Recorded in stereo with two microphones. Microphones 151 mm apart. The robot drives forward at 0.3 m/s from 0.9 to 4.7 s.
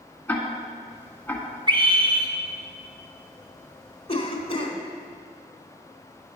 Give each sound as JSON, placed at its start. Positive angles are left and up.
{"t": 0.3, "sound": "ticking", "side_deg": 10, "distance_m": 1.4}
{"t": 1.7, "sound": "a scream", "side_deg": -30, "distance_m": 1.3}
{"t": 4.1, "sound": "a cough", "side_deg": 40, "distance_m": 1.2}